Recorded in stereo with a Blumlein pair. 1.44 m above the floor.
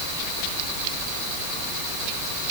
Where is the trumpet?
No trumpet in this recording.